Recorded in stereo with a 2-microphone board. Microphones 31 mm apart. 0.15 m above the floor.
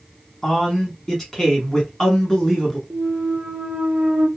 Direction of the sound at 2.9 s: 50° right (ahead or behind).